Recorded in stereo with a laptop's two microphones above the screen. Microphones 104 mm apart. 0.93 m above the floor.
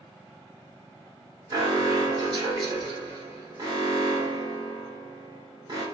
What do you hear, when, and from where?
1.5 s an alarm: 45° right (ahead or behind), 1.2 m